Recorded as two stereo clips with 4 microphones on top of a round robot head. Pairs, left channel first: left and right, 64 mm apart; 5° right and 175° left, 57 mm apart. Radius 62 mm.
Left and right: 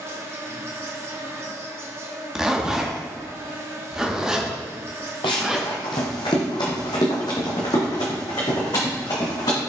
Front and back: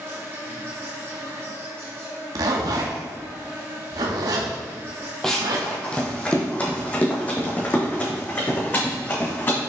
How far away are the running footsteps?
About 1.5 m.